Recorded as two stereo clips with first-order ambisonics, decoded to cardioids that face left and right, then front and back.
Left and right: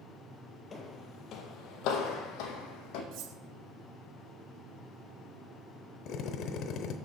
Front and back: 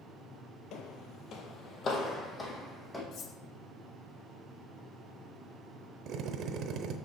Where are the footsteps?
25° left, 1.1 m; by 3.0 s 80° left, 2 m.